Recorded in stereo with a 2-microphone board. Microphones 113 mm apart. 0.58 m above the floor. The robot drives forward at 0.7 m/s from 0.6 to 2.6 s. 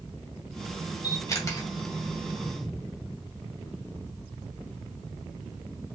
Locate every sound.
1.0 s a camera shutter: 35° left (ahead or behind), 1.2 m; by 1.7 s 25° left (ahead or behind), 1.6 m